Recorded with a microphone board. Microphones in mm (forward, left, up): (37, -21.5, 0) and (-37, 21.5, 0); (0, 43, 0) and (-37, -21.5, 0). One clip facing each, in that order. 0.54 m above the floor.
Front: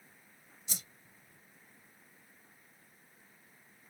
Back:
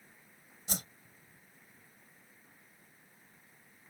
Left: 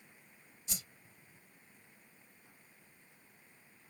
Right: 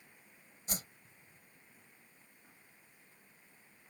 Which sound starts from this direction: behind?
A whoosh, at 0.7 s.